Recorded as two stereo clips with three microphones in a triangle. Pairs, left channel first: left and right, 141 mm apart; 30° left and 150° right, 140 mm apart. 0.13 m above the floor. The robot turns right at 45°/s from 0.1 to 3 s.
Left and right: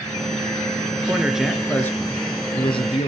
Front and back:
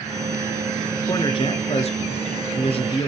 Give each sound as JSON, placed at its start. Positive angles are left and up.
{"t": 1.0, "sound": "a man speaking", "azimuth_deg": -20, "distance_m": 1.7}